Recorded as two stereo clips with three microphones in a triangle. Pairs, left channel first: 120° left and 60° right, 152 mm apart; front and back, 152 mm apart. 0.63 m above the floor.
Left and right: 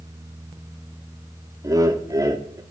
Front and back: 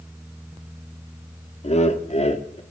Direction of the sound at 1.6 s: 5° right.